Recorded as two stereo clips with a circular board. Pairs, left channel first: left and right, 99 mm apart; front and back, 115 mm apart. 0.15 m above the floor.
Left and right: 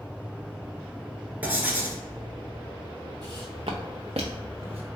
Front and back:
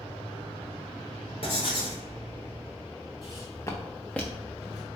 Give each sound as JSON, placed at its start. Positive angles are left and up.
{"t": 1.4, "sound": "writing", "azimuth_deg": -20, "distance_m": 0.9}
{"t": 3.2, "sound": "footsteps", "azimuth_deg": -40, "distance_m": 0.7}